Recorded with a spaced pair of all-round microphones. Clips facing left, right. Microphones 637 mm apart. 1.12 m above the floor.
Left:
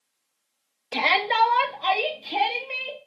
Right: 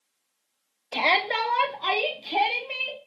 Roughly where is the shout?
Left.